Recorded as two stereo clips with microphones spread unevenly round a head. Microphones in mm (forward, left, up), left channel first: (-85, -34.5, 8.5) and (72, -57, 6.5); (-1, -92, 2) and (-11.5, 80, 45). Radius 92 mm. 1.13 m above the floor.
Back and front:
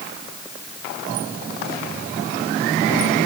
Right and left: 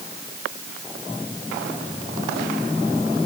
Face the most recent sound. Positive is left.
No sound to turn to.